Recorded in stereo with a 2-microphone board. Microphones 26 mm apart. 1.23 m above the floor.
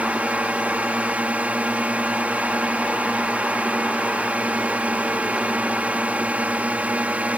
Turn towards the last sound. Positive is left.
turn(degrees=-60)  # may be behind; listen again after turning